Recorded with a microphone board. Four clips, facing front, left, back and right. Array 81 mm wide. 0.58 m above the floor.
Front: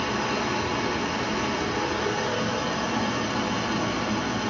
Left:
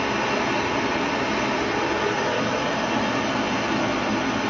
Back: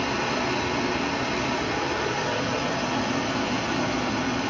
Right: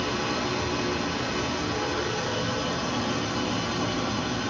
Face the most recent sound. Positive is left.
turn(degrees=95)